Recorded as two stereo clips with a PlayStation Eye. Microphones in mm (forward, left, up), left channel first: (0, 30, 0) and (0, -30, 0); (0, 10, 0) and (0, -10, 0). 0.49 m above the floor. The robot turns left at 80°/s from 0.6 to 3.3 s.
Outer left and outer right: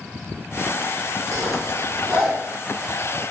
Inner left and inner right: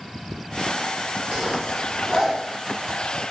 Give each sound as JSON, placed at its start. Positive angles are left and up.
{"t": 1.3, "sound": "a zipper", "side_deg": -70, "distance_m": 1.8}